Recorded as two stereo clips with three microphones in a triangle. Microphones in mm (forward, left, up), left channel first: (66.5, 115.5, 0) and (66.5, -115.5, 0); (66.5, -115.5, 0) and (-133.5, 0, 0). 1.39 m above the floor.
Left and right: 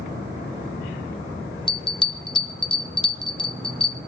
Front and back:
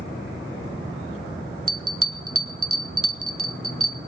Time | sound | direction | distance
1.7 | a bell | 155° left | 0.8 m